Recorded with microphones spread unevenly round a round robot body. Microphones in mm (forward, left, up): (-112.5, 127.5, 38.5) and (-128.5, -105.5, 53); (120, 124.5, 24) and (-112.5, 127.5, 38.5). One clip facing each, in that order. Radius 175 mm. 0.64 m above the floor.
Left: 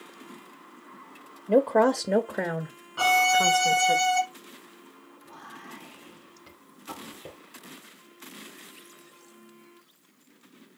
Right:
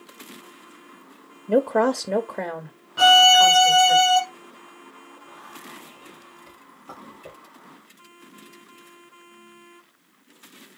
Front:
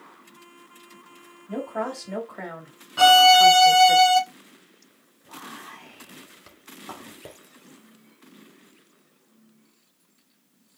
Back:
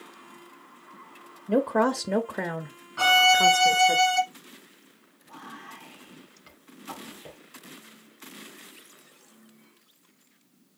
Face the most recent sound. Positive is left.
turn(degrees=20)